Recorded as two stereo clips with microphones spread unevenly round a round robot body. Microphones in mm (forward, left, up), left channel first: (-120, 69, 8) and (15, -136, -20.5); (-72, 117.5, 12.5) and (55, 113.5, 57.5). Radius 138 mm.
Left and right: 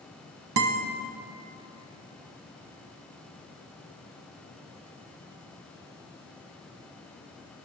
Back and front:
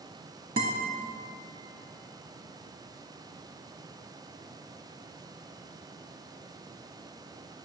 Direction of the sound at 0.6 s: 40° right.